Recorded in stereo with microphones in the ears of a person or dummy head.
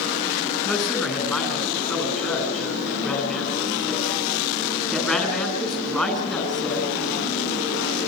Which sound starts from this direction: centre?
A man speaking, at 0.7 s.